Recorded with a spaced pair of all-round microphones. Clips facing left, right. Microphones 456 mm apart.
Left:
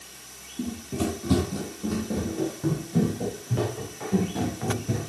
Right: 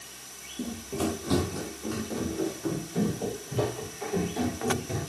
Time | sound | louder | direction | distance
0.6 | running footsteps | left 2 dB | 25° left (ahead or behind) | 1.9 m